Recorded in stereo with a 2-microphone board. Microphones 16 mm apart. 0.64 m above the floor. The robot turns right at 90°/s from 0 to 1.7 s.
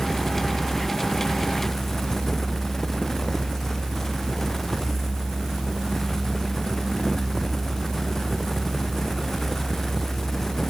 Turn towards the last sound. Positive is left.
No sound to turn to.